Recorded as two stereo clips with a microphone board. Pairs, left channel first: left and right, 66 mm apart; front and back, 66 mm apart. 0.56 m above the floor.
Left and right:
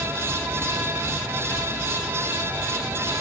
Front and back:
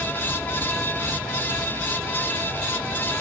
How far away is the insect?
About 1.6 m.